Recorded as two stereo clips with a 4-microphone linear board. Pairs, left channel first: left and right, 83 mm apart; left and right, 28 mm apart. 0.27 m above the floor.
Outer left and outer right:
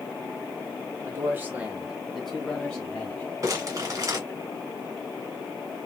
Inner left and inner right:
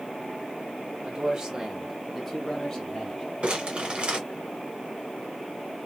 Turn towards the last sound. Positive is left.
turn(degrees=-40)  # may be behind; listen again after turning